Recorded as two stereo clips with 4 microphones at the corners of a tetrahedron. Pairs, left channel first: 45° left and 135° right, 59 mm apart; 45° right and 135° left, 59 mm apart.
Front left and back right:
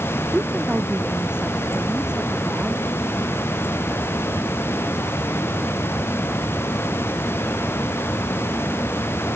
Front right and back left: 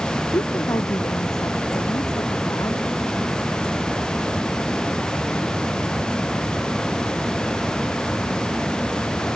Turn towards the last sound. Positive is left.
turn(degrees=-60)